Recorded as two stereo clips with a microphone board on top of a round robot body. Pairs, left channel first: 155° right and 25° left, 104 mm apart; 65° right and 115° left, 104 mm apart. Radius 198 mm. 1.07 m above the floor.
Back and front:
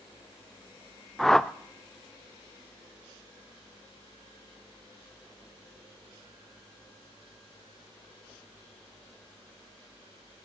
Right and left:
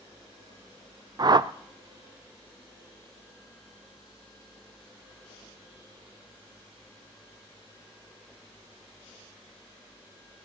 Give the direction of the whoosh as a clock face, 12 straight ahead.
8 o'clock.